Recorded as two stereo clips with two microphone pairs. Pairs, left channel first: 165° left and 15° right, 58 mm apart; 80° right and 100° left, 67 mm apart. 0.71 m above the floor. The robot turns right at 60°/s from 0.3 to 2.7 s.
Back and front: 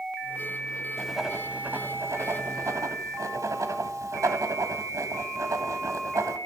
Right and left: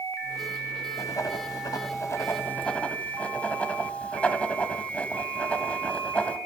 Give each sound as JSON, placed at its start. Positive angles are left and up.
{"t": 1.0, "sound": "writing", "azimuth_deg": -115, "distance_m": 1.1}